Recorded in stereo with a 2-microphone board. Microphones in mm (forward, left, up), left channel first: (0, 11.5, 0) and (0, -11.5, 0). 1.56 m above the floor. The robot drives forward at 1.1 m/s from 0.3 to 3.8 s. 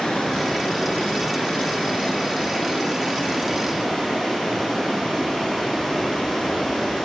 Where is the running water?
50° left (ahead or behind), 2.5 m; by 7.0 s 30° left (ahead or behind), 4 m.